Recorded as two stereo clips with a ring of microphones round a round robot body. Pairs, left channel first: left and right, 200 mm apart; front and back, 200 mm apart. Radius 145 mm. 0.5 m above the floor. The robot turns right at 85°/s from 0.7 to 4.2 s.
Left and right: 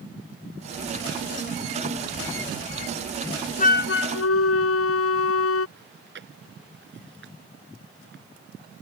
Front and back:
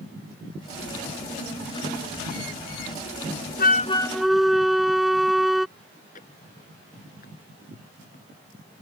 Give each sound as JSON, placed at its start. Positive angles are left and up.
{"t": 3.6, "sound": "a flute", "azimuth_deg": 40}
{"t": 5.8, "sound": "chewing", "azimuth_deg": -65}